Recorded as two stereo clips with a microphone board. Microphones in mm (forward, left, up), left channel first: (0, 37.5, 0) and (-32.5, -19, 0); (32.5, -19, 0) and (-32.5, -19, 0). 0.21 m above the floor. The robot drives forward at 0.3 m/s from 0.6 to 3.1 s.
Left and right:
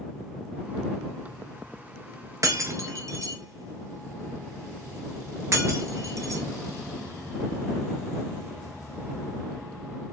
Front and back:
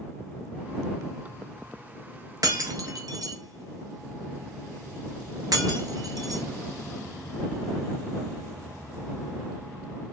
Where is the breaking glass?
155° right, 0.6 m; by 6.4 s 165° right, 0.8 m.